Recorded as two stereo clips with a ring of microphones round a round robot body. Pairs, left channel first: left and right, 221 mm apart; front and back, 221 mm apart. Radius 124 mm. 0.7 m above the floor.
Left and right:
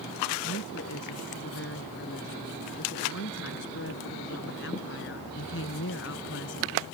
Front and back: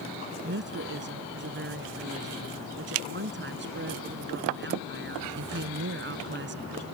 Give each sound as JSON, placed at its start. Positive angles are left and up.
{"t": 0.4, "sound": "a woman speaking", "azimuth_deg": 140}